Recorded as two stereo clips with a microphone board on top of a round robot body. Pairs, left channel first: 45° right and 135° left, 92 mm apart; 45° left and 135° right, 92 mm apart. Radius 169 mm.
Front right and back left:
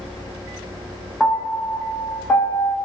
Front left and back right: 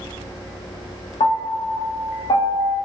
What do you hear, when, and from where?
1.2 s a piano: 35° left, 0.6 m